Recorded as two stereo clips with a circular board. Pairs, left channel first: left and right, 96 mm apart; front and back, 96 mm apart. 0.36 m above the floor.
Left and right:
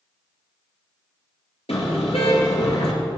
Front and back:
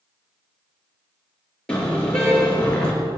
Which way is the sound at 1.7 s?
80° left.